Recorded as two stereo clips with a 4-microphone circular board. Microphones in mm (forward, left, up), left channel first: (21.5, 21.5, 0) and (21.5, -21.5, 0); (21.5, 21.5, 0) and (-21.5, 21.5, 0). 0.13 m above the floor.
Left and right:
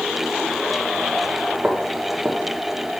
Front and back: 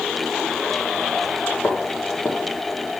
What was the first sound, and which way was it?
Footsteps, 25° right.